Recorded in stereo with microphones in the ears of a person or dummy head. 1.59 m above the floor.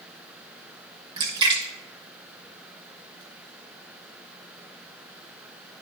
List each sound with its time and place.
1.2 s a splash: 25° right (ahead or behind), 1.0 m